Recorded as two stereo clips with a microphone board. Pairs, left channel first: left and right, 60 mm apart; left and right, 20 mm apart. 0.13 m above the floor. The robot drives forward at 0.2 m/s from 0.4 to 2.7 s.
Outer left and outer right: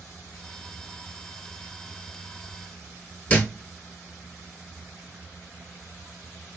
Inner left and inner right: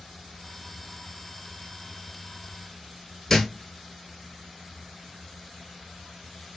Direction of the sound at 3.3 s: 20° left (ahead or behind).